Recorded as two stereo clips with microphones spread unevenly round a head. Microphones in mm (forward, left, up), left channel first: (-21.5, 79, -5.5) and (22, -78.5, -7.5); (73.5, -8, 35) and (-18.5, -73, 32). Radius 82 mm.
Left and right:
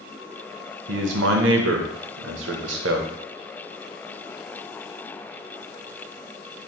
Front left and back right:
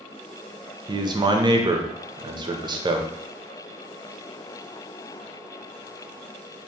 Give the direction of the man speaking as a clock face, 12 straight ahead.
3 o'clock.